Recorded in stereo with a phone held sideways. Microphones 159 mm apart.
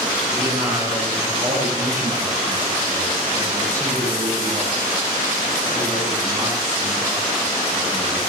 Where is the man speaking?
20° right (ahead or behind), 9.5 m.